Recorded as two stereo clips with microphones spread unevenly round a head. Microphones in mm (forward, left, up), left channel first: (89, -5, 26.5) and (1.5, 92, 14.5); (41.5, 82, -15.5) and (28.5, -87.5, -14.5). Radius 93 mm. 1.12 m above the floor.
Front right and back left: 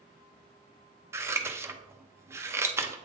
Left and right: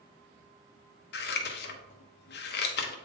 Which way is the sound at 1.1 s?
65° left.